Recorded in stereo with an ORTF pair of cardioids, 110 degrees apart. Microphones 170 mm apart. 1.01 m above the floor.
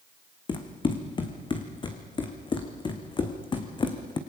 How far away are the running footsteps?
About 3.5 m.